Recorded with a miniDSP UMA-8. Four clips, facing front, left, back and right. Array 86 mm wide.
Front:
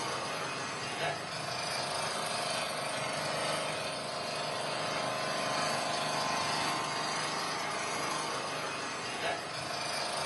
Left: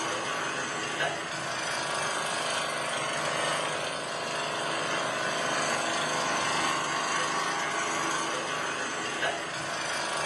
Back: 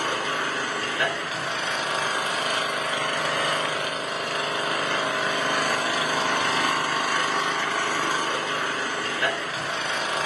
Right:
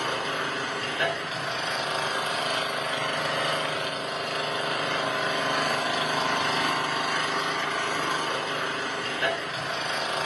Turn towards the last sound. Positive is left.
turn(degrees=-165)